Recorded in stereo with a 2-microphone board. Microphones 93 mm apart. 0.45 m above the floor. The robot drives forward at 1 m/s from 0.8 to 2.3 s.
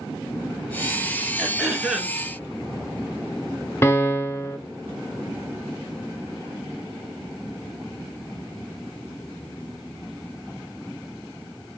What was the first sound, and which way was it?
Throat clearing, 5° right (ahead or behind).